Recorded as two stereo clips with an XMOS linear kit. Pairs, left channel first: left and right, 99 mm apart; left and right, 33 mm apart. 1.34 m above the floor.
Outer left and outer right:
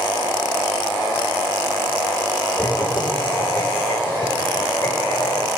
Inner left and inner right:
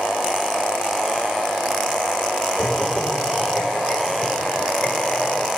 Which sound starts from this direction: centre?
Laughter, at 2.6 s.